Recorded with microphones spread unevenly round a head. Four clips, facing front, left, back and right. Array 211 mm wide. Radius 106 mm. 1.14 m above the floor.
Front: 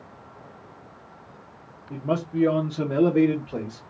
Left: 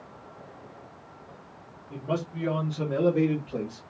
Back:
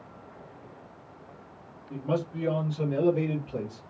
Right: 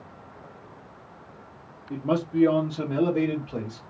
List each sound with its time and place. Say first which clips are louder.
1.9 s a man speaking: right 6 dB, front 4 dB; 55° right, 0.9 m; by 3.8 s 5° left, 1.3 m